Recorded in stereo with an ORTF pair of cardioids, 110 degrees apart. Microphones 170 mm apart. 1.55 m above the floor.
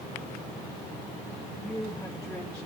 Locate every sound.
1.6 s a woman speaking: 5° left, 4 m